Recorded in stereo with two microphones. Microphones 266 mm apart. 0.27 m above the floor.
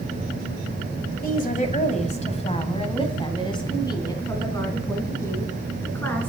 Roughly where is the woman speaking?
Left.